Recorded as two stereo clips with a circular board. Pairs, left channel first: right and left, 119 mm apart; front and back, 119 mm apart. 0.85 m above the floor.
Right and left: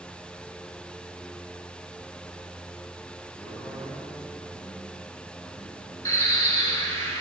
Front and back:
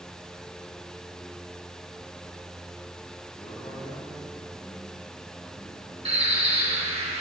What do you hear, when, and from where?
3.4 s a man speaking: 40° right, 6.5 m
6.0 s a bird: 155° right, 3.5 m